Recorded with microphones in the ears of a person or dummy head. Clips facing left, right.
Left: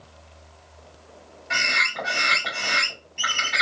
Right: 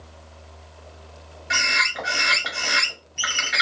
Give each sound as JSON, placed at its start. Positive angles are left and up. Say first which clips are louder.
{"t": 1.5, "sound": "a bird", "louder": "right 1 dB", "side_deg": -25, "distance_m": 1.8}